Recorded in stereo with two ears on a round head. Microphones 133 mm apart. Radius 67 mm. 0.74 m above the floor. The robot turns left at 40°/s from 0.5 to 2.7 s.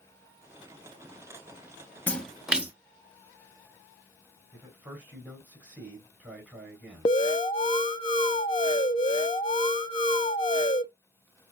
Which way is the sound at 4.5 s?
15° right (ahead or behind).